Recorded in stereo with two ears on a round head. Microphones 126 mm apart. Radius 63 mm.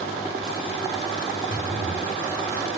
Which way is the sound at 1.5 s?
Centre (ahead or behind).